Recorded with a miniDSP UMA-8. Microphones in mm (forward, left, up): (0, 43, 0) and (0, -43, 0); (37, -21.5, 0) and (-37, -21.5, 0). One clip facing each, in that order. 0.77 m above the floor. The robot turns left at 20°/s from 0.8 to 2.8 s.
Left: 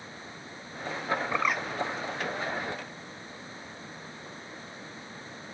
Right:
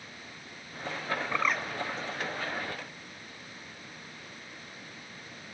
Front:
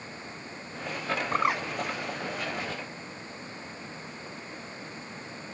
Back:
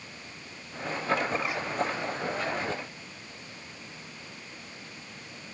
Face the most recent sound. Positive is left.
turn(degrees=-20)